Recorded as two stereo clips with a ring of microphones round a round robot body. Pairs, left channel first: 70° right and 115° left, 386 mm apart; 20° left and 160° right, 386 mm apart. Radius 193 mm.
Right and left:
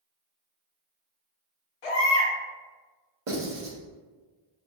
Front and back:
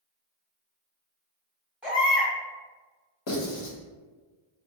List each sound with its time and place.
1.8 s a baby crying: 65° right, 1.6 m
3.3 s writing: 55° left, 1.6 m